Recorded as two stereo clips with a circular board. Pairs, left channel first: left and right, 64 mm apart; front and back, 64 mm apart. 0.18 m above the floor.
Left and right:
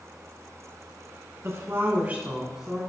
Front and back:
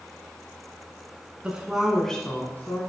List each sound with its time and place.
1.4 s a woman speaking: 115° right, 2.0 m; by 2.8 s straight ahead, 1.6 m